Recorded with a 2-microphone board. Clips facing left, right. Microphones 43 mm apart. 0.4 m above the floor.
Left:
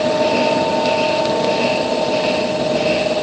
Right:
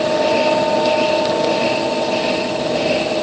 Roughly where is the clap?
I don't hear a clap.